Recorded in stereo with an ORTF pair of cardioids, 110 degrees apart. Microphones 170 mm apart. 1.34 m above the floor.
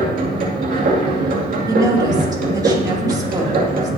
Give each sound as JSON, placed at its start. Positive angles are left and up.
{"t": 0.0, "sound": "a machine running", "azimuth_deg": -55, "distance_m": 2.5}
{"t": 1.7, "sound": "a woman speaking", "azimuth_deg": -25, "distance_m": 2.5}